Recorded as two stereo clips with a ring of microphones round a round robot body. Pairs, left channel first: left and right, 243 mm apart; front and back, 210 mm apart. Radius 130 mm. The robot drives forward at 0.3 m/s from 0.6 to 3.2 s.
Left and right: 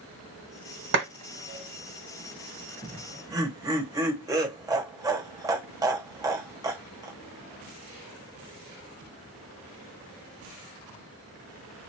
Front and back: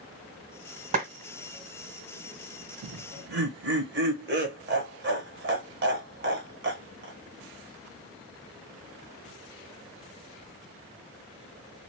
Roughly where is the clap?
Behind right.